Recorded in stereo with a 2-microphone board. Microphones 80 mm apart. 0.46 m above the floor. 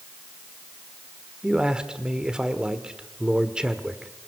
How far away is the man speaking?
About 1.5 m.